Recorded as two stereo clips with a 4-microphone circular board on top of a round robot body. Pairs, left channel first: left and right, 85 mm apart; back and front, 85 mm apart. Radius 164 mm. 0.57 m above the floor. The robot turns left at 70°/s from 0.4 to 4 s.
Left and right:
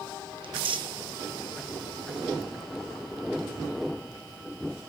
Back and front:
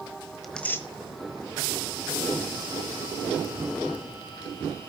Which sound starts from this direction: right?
Tearing paper, at 0.4 s.